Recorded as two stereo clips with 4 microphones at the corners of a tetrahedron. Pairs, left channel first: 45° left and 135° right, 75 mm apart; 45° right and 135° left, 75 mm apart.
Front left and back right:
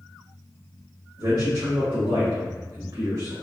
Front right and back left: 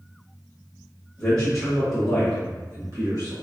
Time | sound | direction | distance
1.2 | a man speaking | 115° right | 1.0 m